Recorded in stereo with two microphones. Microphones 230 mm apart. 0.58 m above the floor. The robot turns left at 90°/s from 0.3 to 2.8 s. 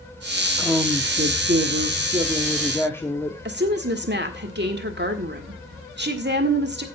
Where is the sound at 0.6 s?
5° left, 1.0 m; by 3.4 s 165° left, 1.0 m.